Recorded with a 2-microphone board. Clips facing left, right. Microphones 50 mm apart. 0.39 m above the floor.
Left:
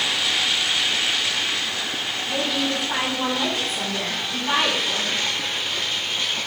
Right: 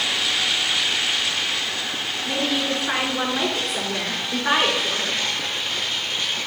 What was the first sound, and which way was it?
A woman speaking, 80° right.